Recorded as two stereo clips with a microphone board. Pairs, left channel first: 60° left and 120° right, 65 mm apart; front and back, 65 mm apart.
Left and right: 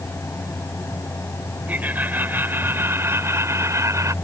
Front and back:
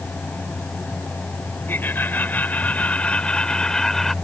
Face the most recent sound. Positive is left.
turn(degrees=-85)